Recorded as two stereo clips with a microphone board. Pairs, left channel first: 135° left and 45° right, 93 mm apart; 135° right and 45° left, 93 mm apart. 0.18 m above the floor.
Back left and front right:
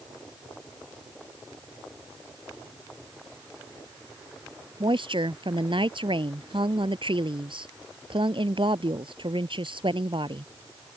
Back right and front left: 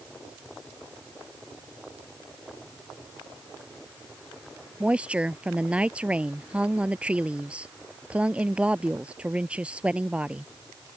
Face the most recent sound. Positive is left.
turn(degrees=-30)